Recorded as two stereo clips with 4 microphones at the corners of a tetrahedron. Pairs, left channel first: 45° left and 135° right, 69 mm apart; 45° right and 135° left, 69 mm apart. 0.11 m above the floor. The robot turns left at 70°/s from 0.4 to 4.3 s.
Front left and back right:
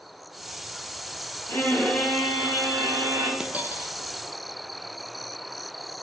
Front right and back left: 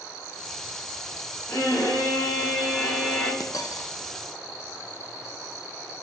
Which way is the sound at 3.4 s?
60° right.